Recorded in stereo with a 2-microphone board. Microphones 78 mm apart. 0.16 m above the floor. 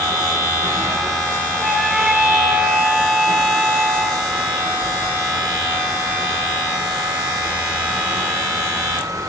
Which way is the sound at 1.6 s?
5° right (ahead or behind).